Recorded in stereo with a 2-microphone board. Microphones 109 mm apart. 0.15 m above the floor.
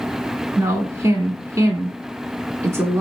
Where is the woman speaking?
25° right (ahead or behind), 1.1 m.